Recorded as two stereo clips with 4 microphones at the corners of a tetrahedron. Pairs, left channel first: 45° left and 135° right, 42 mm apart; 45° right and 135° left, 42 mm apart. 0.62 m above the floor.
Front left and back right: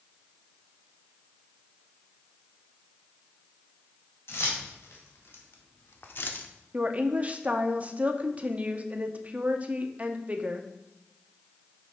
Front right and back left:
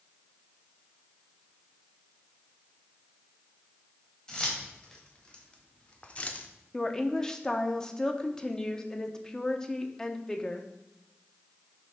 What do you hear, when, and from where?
4.3 s keys jangling: 30° left, 2.0 m; by 6.5 s 5° left, 0.6 m
6.7 s a woman speaking: 110° right, 0.7 m